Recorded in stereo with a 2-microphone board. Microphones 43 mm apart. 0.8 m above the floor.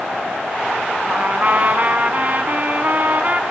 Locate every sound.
1.1 s a trumpet: 35° right (ahead or behind), 1.3 m